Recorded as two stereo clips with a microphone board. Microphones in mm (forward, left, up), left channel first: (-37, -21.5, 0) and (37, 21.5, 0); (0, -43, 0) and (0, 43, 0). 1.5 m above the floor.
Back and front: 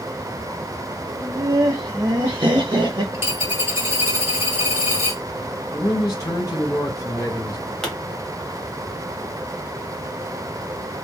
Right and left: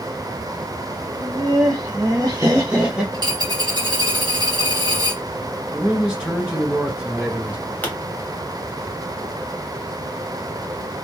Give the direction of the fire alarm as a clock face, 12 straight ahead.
No fire alarm in this recording.